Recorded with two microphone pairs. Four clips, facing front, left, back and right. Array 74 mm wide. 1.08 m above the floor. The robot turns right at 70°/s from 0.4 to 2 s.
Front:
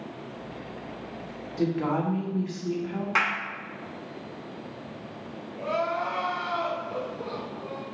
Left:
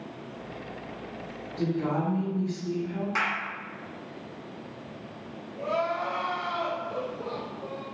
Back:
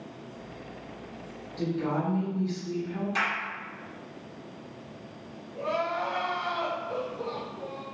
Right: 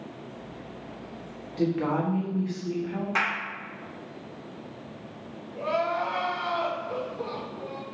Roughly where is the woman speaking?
Ahead right.